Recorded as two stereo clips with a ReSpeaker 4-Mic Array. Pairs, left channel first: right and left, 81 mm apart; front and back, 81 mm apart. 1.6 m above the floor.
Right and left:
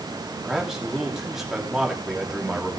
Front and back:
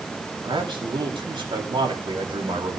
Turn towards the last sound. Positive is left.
turn(degrees=175)